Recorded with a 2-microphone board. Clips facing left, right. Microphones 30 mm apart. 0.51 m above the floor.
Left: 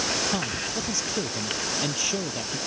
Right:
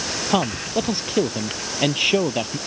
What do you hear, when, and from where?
0.3 s a man speaking: 45° right (ahead or behind)